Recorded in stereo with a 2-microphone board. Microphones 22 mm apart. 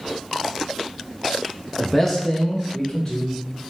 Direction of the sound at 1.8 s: 5° right (ahead or behind).